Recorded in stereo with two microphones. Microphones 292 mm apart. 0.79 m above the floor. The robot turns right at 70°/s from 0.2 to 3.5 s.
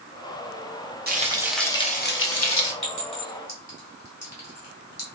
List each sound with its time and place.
1.1 s frying: 35° right, 0.7 m; by 2.7 s 80° left, 0.7 m
2.8 s a clink: 75° left (ahead or behind), 1.5 m; by 5.0 s 55° left (ahead or behind), 1.5 m